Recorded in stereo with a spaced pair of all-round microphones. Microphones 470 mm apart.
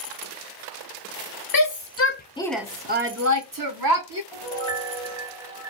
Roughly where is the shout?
Left.